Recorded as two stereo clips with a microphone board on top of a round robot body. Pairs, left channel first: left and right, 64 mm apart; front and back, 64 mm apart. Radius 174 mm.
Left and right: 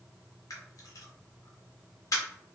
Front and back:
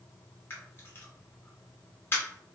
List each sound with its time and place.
0.5 s a camera shutter: 55° left, 0.8 m